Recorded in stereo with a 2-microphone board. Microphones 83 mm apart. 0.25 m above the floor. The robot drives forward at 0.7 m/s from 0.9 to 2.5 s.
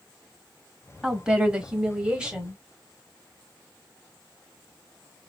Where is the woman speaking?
10° right (ahead or behind), 1.1 m.